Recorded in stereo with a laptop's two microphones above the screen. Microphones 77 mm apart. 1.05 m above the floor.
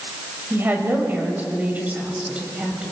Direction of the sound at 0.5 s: 30° right (ahead or behind).